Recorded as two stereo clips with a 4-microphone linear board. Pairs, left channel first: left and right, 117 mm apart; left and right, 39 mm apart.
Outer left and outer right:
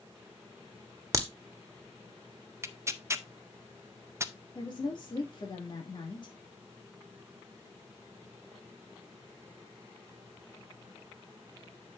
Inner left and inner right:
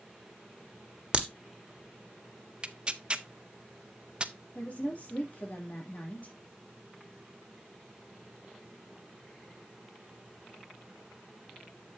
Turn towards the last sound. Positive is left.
turn(degrees=40)  # may be behind; listen again after turning